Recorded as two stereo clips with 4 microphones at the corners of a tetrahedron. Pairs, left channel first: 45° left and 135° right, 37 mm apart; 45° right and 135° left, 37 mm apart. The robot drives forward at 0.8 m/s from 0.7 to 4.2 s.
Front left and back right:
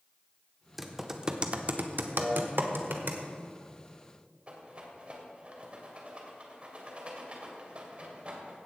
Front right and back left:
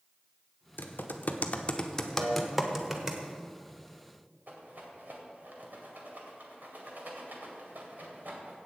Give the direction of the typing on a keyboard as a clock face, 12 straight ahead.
2 o'clock.